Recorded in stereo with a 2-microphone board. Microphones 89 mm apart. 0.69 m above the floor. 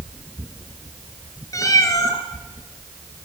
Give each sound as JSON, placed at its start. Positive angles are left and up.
{"t": 1.5, "sound": "a cat meowing", "side_deg": 35, "distance_m": 2.5}